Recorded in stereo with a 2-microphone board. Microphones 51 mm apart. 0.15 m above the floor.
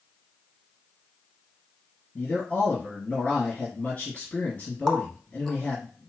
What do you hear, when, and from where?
2.1 s a man speaking: 20° left (ahead or behind), 2 m
4.9 s a running tap: 5° left (ahead or behind), 0.9 m